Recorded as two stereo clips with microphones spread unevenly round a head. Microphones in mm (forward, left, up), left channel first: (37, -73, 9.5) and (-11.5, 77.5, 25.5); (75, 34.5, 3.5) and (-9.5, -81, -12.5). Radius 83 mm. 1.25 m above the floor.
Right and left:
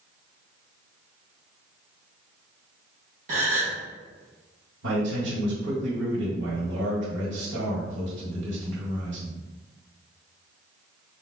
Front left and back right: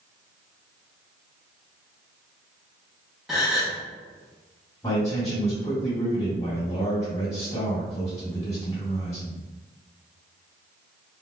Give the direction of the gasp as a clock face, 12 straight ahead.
7 o'clock.